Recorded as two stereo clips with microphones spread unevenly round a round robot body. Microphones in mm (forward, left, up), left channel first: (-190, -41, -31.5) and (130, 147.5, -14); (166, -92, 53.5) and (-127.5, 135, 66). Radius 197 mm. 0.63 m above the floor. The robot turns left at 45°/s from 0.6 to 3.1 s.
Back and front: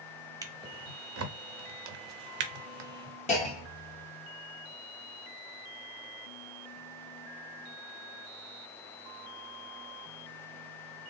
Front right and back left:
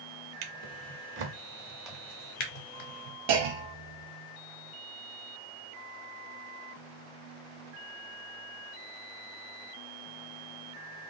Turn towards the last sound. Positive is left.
turn(degrees=140)